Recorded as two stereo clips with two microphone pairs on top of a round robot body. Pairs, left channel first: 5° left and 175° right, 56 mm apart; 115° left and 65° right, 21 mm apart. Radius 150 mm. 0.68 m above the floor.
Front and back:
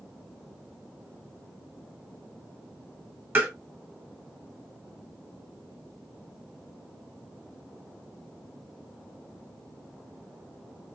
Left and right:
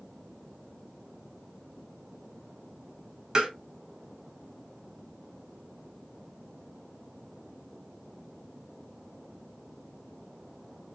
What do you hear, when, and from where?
3.4 s tapping: 120° right, 1.2 m